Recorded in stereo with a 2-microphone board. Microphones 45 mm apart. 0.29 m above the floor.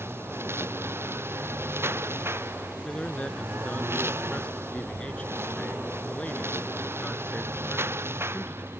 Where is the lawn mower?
75° right (ahead or behind).